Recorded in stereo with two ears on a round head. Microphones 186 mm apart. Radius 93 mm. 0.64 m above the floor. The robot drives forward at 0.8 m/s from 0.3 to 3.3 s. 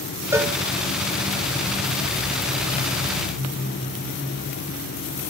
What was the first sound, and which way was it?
A cowbell, 15° right (ahead or behind).